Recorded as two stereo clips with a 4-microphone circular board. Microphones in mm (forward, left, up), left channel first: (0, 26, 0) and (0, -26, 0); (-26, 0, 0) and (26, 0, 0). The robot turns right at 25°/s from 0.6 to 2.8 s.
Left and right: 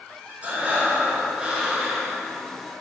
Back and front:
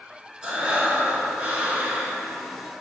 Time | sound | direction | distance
0.4 | breathing | 60° right | 0.8 m